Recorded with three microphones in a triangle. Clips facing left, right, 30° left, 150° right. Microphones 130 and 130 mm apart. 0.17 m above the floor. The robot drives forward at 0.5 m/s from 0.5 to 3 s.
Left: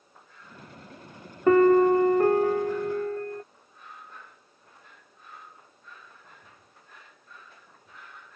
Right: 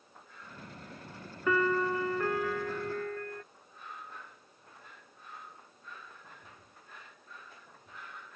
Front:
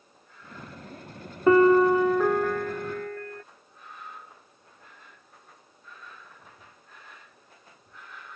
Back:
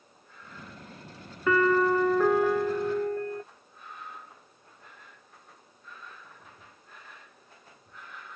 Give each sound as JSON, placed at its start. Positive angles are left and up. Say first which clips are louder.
{"t": 1.5, "sound": "a piano", "louder": "left 12 dB, front 6 dB", "azimuth_deg": 70}